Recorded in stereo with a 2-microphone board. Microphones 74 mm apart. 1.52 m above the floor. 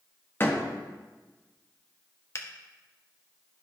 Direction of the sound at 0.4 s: 30° left (ahead or behind).